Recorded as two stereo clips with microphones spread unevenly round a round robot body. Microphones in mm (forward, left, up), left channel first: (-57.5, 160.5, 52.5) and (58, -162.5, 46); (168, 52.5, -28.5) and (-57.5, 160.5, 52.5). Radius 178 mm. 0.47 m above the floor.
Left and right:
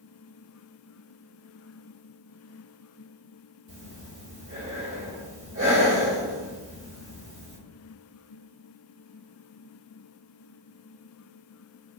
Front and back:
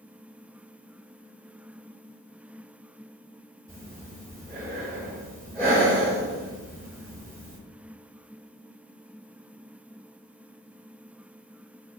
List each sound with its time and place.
3.7 s breathing: 65° right, 1.5 m